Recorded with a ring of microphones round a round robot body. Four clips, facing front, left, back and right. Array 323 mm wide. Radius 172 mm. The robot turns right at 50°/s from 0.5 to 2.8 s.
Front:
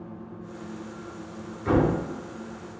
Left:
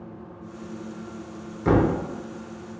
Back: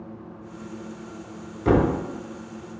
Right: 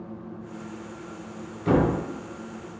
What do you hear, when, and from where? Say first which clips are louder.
1.6 s a thud: left 1 dB, back 3 dB; 140° left, 1.0 m; by 1.9 s 155° left, 1.0 m